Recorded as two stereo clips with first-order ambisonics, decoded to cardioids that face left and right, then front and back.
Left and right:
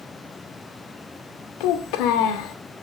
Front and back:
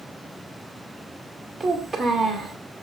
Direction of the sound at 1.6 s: 95° left.